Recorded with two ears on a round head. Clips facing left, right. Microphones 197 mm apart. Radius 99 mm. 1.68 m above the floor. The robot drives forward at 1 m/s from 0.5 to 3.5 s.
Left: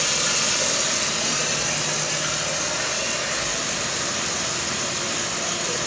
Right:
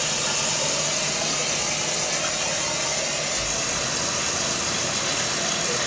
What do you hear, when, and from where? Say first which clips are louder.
0.0 s running water: left 1 dB; 25° left (ahead or behind), 1.6 m; by 5.9 s 10° left (ahead or behind), 4.5 m